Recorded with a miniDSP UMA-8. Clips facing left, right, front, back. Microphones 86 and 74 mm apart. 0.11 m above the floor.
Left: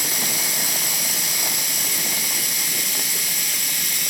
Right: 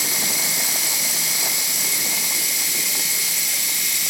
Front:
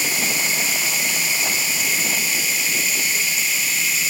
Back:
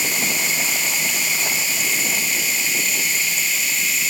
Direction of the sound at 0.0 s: 90° left.